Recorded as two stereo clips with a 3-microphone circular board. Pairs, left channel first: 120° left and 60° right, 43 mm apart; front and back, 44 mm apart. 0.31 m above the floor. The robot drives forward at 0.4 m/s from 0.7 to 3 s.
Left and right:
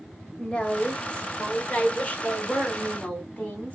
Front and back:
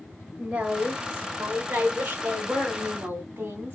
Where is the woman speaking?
145° left, 1.1 m; by 3.8 s 170° left, 1.6 m.